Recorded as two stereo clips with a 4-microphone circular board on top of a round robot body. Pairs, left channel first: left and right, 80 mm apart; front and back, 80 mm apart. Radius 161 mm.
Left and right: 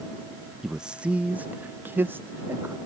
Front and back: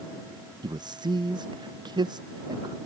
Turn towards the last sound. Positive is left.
turn(degrees=-150)